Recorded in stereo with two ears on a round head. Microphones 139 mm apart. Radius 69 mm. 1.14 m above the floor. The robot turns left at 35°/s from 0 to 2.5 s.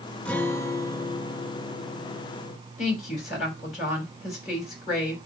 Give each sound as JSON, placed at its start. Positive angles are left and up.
{"t": 0.2, "sound": "a guitar", "azimuth_deg": 165, "distance_m": 1.0}
{"t": 2.8, "sound": "a woman speaking", "side_deg": 45, "distance_m": 4.5}